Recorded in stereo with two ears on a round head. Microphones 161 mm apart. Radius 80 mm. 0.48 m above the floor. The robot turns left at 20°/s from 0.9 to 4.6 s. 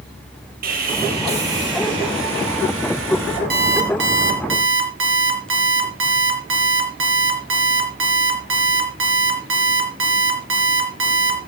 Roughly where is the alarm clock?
Right.